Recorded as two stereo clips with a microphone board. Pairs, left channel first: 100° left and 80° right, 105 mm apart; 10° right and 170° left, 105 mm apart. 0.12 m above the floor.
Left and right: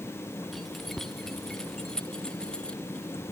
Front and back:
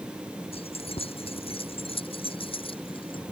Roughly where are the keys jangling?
Ahead.